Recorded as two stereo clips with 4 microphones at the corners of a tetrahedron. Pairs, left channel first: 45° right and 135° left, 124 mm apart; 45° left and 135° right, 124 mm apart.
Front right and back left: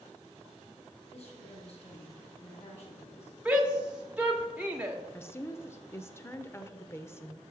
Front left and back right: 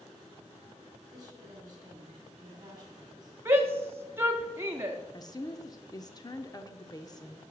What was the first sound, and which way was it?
A woman speaking, 80° right.